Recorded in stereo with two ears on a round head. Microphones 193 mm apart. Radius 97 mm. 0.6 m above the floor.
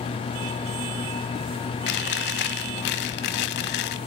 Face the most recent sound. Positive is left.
turn(degrees=55)  # may be behind; listen again after turning